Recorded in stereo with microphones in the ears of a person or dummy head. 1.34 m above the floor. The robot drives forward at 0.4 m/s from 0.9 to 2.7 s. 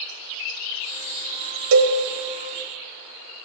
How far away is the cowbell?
About 1.0 m.